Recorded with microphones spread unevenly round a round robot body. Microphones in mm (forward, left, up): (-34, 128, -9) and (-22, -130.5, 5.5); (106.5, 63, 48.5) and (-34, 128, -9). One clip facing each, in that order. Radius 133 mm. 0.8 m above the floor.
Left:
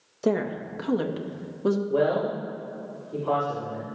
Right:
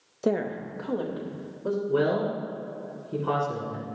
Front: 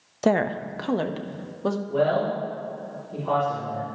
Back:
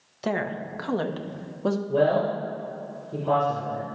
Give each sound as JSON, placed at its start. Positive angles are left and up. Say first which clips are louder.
{"t": 0.2, "sound": "a woman speaking", "louder": "left 1 dB, front 6 dB", "azimuth_deg": 10, "distance_m": 0.6}
{"t": 1.9, "sound": "a man speaking", "louder": "even, back 1 dB", "azimuth_deg": -135, "distance_m": 2.5}